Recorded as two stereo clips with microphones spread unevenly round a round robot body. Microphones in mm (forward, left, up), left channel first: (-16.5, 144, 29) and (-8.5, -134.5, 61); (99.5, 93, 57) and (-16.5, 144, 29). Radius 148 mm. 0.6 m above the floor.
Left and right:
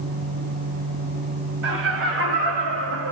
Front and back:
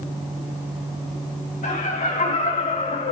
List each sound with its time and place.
1.6 s laughter: 40° right, 4.5 m; by 3.1 s 50° right, 3.5 m